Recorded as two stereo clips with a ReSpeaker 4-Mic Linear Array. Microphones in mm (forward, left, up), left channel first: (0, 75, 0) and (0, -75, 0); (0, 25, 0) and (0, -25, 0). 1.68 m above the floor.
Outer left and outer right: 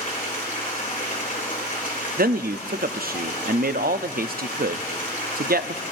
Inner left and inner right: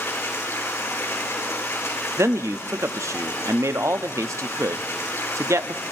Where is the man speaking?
70° right (ahead or behind), 0.5 m.